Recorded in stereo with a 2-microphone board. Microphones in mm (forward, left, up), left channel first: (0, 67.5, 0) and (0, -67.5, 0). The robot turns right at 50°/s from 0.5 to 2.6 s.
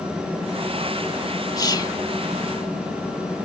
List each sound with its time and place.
1.6 s whispering: 25° left (ahead or behind)